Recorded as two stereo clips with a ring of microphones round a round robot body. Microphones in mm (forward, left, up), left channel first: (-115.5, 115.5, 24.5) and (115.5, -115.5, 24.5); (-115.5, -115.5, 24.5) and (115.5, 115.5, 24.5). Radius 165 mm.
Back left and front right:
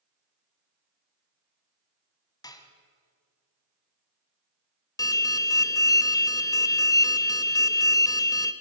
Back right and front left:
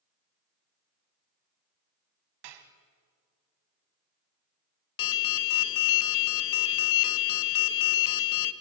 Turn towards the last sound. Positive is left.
turn(degrees=-145)